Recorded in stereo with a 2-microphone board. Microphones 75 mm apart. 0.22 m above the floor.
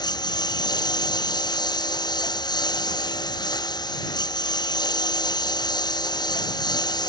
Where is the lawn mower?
85° left.